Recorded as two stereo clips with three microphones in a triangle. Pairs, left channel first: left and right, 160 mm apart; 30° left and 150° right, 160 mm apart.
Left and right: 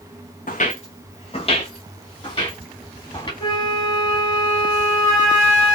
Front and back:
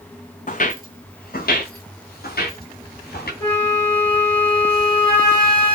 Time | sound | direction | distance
0.5 | footsteps | 60° left | 0.6 m
3.4 | a flute | 105° left | 1.8 m